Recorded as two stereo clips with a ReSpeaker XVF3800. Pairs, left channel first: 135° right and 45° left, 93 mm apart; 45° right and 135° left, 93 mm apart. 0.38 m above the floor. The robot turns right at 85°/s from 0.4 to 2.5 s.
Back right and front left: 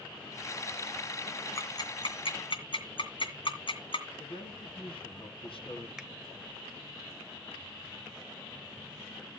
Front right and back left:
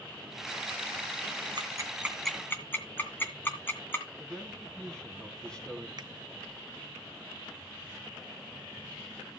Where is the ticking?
165° left, 2.5 m; by 4.0 s 115° right, 2.5 m.